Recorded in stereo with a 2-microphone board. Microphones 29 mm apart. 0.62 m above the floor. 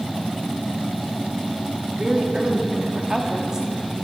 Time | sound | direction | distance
1.9 | a woman speaking | 25° right (ahead or behind) | 1.3 m